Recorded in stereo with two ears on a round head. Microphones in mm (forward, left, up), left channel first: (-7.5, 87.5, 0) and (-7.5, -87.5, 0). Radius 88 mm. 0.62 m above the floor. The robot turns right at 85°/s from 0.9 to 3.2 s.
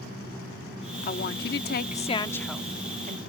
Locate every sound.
1.0 s a woman speaking: 50° left; by 3.2 s 125° right